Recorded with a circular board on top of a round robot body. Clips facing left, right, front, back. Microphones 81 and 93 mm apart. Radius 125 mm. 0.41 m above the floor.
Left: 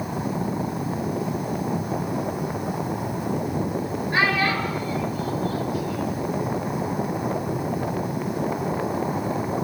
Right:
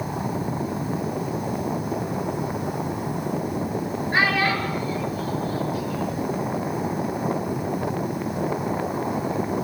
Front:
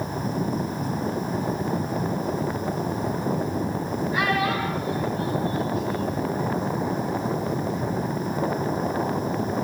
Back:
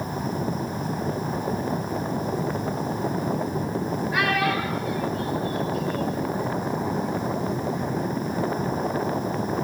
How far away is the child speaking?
About 8 m.